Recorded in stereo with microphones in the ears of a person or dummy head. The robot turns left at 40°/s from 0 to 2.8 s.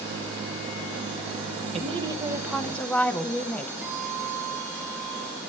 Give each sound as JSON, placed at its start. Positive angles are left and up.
{"t": 1.7, "sound": "a woman speaking", "azimuth_deg": -145, "distance_m": 0.8}
{"t": 3.8, "sound": "a guitar", "side_deg": -10, "distance_m": 2.5}